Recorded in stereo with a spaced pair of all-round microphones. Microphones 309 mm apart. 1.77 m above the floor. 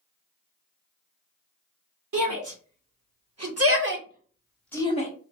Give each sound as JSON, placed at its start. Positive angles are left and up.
{"t": 2.1, "sound": "a shout", "side_deg": -75, "distance_m": 1.6}